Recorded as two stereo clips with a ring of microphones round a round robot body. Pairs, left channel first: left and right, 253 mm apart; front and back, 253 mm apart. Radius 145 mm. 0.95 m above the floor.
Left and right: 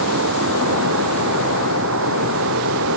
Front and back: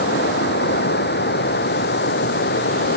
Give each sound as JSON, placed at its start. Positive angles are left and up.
{"t": 0.0, "sound": "running water", "azimuth_deg": -45}